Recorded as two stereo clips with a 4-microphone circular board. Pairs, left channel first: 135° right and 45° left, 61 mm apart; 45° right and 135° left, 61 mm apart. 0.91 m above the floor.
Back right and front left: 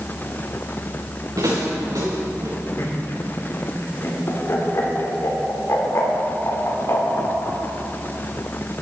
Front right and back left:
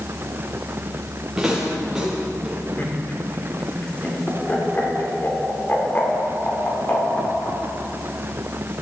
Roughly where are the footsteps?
Ahead left.